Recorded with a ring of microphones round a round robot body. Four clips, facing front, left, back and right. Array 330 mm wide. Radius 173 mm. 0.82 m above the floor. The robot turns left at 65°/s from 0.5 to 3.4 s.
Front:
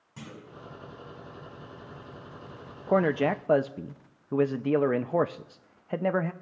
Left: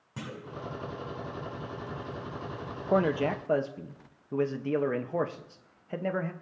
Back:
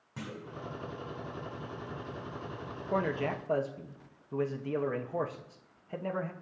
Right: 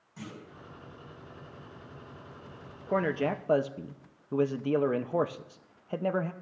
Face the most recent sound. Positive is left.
turn(degrees=-10)